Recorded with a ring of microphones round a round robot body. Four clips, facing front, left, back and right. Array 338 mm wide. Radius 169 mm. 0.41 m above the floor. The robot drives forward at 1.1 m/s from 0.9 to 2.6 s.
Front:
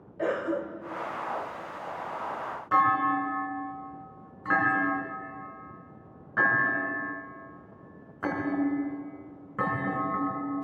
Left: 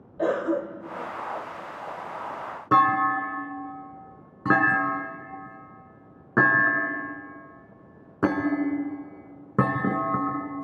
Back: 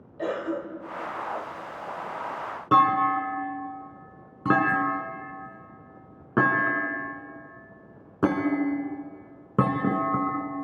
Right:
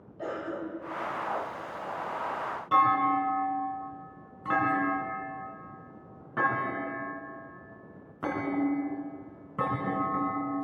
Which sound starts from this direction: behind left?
A clunk, at 2.7 s.